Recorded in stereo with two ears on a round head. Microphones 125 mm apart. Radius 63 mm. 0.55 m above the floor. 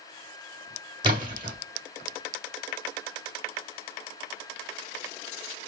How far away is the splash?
About 1.7 m.